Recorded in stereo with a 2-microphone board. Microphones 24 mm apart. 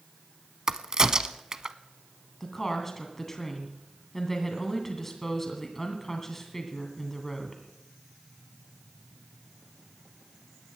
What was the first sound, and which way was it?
A crack, 30° right (ahead or behind).